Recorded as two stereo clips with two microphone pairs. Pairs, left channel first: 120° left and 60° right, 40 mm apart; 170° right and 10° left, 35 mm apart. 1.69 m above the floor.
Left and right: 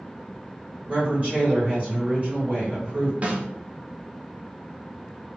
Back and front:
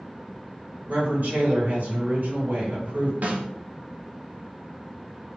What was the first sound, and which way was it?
A woman speaking, 5° right.